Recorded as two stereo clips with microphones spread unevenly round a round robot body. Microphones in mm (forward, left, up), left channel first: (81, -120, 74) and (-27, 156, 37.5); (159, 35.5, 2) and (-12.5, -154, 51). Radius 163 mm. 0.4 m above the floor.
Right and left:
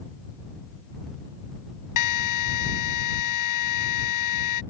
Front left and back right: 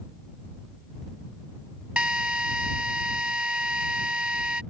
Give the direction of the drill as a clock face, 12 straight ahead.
2 o'clock.